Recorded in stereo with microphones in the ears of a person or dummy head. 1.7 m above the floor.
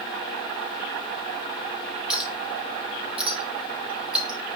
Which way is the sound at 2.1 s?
5° right (ahead or behind).